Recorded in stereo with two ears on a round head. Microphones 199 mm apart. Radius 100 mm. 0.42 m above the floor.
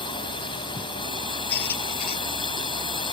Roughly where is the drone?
Left.